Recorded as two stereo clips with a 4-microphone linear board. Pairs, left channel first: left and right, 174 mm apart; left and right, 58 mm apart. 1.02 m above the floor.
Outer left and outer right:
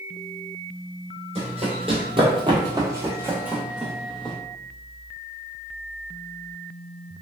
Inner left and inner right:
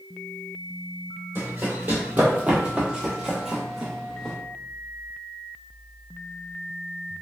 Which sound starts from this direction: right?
Running footsteps, at 1.4 s.